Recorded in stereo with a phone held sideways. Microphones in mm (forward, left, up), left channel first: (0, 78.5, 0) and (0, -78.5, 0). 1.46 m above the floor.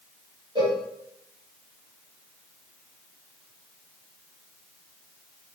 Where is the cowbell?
35° right (ahead or behind), 1.3 m.